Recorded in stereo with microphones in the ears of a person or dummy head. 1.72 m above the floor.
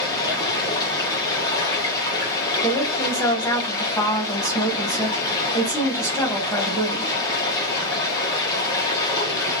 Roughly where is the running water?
Left.